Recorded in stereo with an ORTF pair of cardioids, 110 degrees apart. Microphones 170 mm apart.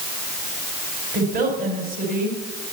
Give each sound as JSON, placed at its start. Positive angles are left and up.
{"t": 1.1, "sound": "a woman speaking", "azimuth_deg": -60, "distance_m": 5.5}